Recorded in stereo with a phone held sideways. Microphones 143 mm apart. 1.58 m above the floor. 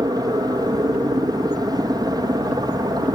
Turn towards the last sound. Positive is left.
turn(degrees=-25)  # may be behind; listen again after turning